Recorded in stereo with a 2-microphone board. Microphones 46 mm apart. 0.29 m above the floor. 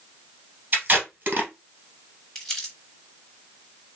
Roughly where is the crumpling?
Centre.